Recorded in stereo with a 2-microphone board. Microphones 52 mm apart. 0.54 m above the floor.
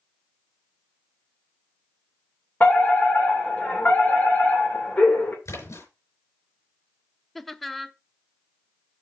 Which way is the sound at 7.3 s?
Centre (ahead or behind).